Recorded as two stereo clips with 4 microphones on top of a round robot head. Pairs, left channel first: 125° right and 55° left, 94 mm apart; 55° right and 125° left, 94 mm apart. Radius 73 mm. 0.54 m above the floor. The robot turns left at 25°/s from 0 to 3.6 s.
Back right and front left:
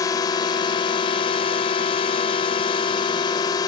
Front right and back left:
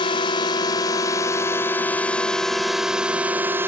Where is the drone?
80° right; by 3.7 s 170° right.